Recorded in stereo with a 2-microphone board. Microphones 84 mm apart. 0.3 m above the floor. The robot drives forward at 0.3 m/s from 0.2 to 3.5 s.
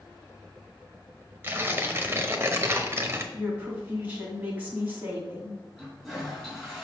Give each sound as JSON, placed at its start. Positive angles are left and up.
{"t": 1.4, "sound": "tearing paper", "side_deg": -25, "distance_m": 0.8}
{"t": 3.3, "sound": "a woman speaking", "side_deg": -20, "distance_m": 2.0}
{"t": 5.8, "sound": "a toilet flushing", "side_deg": 5, "distance_m": 3.5}